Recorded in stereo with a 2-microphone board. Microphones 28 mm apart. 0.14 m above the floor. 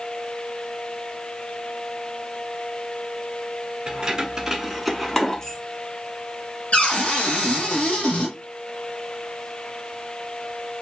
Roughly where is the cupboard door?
Left.